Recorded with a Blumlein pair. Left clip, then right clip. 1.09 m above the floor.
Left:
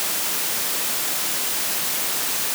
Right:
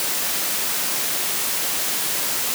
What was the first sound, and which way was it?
Only background noise.